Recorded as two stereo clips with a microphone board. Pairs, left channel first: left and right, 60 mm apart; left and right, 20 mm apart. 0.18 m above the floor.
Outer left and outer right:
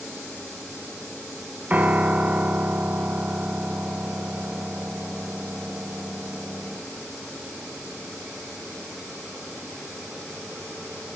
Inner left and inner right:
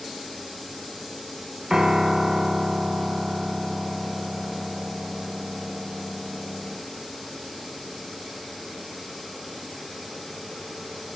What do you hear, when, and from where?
1.7 s a piano: 25° right (ahead or behind), 0.9 m